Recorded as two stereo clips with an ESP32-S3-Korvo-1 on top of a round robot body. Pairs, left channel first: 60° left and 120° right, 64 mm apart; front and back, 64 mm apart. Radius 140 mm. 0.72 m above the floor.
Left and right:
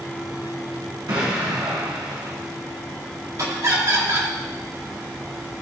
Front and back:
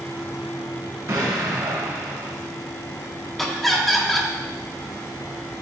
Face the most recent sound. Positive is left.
turn(degrees=-90)